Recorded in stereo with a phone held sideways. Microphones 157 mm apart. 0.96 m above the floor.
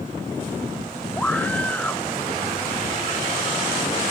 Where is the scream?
10° left (ahead or behind).